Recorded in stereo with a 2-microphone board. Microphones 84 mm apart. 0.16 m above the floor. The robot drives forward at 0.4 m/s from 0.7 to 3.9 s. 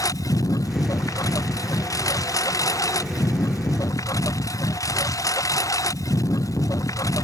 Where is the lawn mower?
45° left (ahead or behind); by 7.2 s 40° left (ahead or behind).